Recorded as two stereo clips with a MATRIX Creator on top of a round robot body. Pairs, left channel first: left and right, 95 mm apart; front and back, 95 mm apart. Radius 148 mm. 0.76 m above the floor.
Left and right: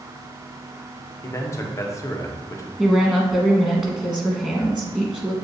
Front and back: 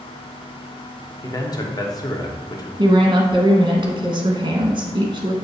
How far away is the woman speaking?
About 1.1 m.